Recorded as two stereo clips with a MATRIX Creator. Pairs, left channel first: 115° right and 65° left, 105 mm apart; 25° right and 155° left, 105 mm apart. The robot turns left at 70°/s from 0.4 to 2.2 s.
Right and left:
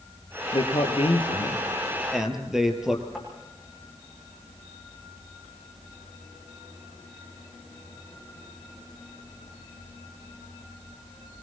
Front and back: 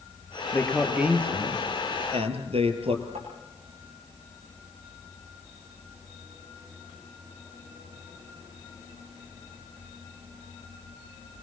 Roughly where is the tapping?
Behind left.